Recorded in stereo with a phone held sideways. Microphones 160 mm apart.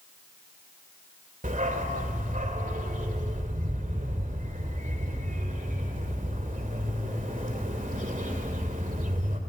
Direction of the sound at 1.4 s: 60° right (ahead or behind).